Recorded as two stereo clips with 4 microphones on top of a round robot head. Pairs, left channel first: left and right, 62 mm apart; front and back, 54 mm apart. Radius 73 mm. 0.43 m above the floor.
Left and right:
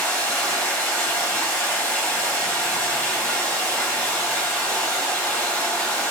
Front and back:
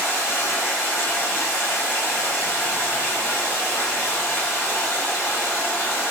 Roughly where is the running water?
Ahead left.